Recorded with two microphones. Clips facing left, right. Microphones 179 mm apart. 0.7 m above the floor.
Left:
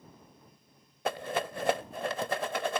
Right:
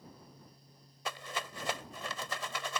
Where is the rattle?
55° left (ahead or behind).